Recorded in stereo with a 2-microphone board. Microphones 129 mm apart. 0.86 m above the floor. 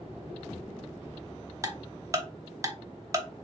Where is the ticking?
25° right (ahead or behind), 0.5 m.